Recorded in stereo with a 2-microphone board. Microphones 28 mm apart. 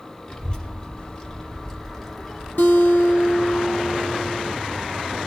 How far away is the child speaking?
About 1.3 m.